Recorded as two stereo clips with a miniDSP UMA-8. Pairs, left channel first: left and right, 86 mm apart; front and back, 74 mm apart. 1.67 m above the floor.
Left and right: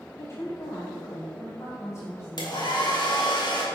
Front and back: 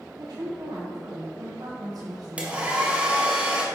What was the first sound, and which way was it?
A woman speaking, 150° left.